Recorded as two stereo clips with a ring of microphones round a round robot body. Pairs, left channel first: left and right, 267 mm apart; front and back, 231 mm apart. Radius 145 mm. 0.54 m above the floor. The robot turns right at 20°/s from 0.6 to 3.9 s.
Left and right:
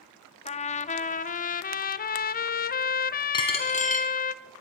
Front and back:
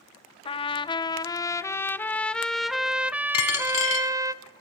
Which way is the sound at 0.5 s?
50° left.